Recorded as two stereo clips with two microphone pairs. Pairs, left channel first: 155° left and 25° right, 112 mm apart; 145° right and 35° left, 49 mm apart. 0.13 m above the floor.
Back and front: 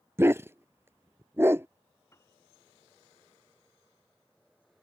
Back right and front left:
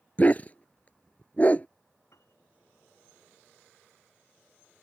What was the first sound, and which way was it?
A dog barking, 90° right.